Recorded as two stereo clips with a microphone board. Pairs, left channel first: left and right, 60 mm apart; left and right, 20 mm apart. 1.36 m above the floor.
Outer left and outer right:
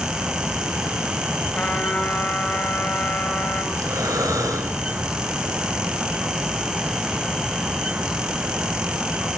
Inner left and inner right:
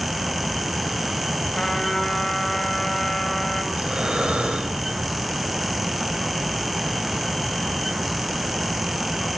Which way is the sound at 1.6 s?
20° left (ahead or behind).